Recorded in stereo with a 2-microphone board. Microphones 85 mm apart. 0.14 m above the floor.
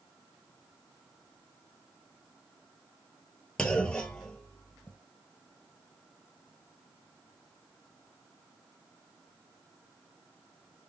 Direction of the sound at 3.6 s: 10° left (ahead or behind).